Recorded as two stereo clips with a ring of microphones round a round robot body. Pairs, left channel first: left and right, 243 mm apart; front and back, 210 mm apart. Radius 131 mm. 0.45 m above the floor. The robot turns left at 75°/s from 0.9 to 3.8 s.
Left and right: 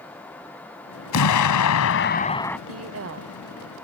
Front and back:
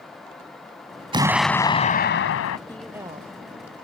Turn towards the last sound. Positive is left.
turn(degrees=-165)